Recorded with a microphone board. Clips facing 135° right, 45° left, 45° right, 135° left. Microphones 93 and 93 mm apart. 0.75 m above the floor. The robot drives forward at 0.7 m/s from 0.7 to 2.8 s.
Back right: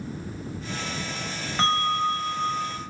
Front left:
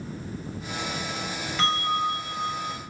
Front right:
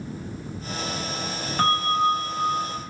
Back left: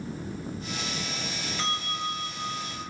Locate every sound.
1.6 s a bell: 80° right, 3 m; by 2.8 s 95° right, 3 m